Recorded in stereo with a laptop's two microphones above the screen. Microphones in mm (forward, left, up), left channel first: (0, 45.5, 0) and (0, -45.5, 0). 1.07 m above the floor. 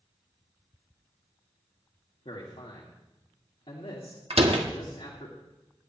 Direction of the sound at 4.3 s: 85° right.